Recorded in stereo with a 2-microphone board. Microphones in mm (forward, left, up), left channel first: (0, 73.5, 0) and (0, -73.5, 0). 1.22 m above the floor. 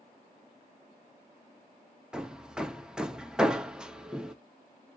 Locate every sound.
2.1 s hammering: 5° right (ahead or behind), 0.6 m